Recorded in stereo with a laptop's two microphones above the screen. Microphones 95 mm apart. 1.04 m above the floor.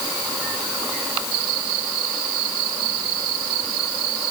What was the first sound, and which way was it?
Only background noise.